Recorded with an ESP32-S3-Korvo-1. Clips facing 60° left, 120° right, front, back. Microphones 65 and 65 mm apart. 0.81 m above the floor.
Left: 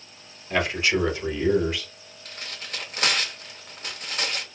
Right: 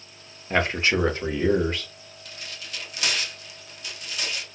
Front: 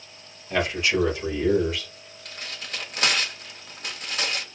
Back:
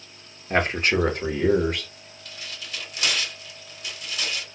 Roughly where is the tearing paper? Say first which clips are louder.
Left 3 dB, front 2 dB; ahead left.